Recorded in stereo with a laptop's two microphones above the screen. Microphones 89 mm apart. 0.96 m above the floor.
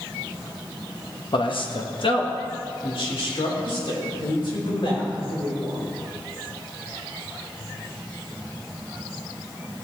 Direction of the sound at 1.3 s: 65° left (ahead or behind).